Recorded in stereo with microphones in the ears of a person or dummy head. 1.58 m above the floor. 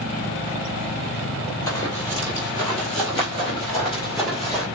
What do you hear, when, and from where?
1.7 s running footsteps: 20° left (ahead or behind), 1.8 m